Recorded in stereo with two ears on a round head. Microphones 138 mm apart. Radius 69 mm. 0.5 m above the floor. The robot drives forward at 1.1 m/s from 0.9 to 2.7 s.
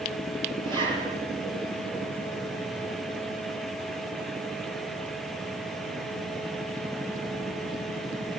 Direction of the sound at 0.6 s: 30° right (ahead or behind).